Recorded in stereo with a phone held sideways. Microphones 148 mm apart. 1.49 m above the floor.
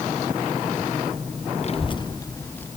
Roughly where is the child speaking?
Left.